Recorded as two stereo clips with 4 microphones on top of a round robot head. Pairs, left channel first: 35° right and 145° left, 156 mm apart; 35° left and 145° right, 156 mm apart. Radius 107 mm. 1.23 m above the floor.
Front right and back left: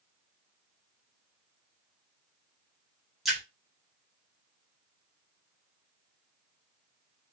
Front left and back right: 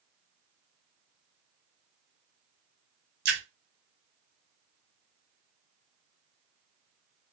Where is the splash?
125° right, 0.7 m.